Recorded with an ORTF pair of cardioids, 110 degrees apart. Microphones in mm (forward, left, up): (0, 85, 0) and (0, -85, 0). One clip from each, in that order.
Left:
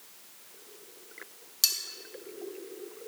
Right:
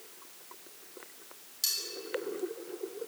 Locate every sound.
1.6 s cutlery clinking: 50° left, 1.2 m